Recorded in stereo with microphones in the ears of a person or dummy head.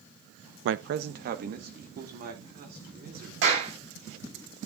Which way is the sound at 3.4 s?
65° right (ahead or behind).